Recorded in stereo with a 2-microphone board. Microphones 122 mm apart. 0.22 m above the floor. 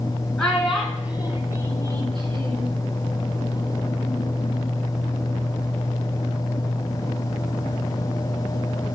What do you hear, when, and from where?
0.4 s a child speaking: 10° left (ahead or behind), 1.7 m; by 2.8 s 50° right (ahead or behind), 2 m